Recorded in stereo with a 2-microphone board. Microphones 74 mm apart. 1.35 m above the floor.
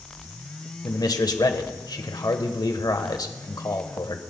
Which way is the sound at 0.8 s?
65° left (ahead or behind).